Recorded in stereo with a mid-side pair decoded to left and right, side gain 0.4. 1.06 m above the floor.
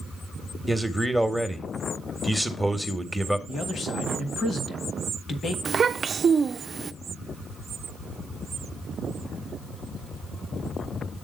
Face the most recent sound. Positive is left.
turn(degrees=-45)